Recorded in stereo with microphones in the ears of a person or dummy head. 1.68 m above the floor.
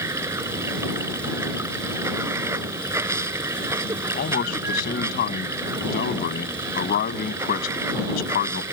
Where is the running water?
15° right (ahead or behind).